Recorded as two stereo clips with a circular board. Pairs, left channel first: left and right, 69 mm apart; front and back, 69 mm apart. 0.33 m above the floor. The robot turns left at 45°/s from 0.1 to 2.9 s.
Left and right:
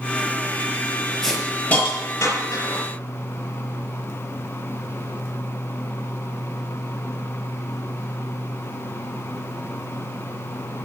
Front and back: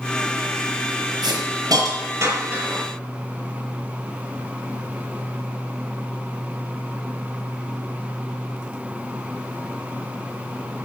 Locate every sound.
1.2 s a hiss: 175° left, 5.5 m; by 2.8 s 105° left, 5.5 m